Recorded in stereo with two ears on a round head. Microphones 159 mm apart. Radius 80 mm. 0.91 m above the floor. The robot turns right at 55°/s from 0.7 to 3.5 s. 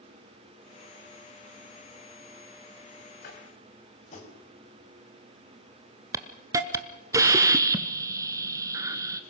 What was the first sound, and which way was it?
Tapping, 55° left (ahead or behind).